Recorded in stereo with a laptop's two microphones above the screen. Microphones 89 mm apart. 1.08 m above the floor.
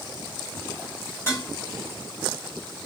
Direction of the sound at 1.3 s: 25° left (ahead or behind).